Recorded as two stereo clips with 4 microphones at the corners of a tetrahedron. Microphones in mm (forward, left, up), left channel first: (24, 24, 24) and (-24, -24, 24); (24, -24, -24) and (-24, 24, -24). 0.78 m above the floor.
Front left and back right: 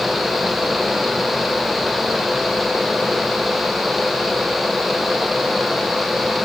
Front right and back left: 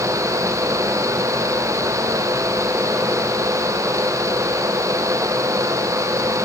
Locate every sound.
Only background noise.